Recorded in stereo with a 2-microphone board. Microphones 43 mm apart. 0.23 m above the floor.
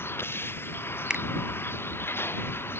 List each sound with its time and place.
0.0 s a vehicle: 70° left (ahead or behind)
1.1 s a finger snap: 20° right (ahead or behind)